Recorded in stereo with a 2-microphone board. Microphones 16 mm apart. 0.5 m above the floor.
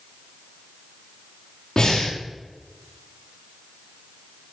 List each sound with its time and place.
1.8 s breathing: 40° left (ahead or behind), 3 m